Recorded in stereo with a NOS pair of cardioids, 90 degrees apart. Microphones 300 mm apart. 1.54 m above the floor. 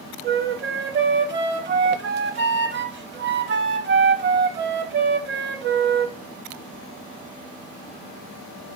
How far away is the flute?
About 0.7 m.